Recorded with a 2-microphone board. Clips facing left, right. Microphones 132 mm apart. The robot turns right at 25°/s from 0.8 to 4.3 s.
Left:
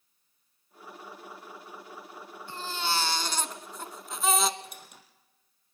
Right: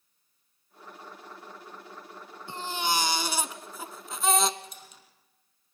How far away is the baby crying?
About 0.9 m.